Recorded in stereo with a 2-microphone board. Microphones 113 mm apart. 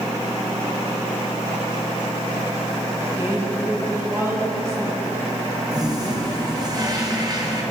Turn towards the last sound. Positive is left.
turn(degrees=-35)  # may be behind; listen again after turning